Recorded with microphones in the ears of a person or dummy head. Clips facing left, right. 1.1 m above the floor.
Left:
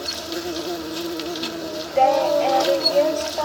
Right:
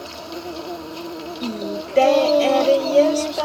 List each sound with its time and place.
0.0 s an insect: 15° left (ahead or behind)
1.4 s singing: 35° right (ahead or behind)